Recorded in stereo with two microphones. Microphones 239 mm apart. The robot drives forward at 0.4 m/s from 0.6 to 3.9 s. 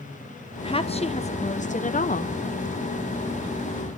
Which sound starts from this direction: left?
A woman speaking, at 0.6 s.